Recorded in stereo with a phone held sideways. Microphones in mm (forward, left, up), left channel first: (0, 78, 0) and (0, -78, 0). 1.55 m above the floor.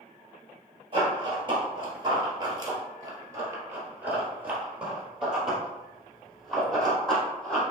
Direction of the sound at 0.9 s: 35° right (ahead or behind).